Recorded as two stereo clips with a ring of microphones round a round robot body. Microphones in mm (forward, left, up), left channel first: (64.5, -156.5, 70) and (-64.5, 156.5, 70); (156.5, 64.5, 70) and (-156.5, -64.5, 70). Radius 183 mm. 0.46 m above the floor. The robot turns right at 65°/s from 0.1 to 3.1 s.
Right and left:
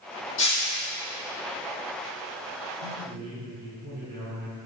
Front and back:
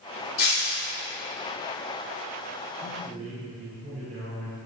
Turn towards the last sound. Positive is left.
turn(degrees=150)